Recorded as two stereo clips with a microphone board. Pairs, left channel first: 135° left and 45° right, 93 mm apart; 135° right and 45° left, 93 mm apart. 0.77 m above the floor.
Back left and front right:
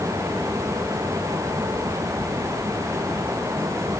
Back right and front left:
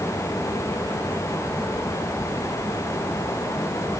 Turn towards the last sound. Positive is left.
No sound to turn to.